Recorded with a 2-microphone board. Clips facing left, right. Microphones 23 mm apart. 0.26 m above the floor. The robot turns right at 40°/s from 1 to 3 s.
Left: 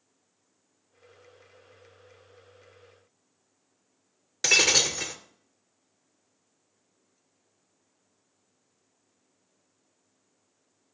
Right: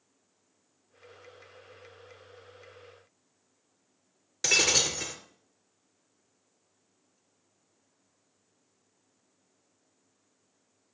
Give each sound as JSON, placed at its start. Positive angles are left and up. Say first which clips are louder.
{"t": 4.4, "sound": "breaking glass", "louder": "left 3 dB", "side_deg": 20, "distance_m": 1.7}